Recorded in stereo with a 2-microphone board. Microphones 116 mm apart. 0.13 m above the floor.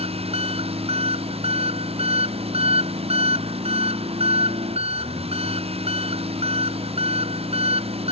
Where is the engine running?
55° right (ahead or behind).